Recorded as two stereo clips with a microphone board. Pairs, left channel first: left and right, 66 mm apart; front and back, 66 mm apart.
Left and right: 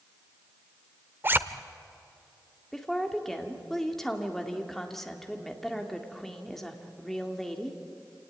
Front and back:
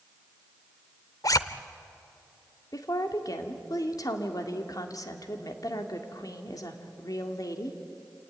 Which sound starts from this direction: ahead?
A woman speaking, at 2.7 s.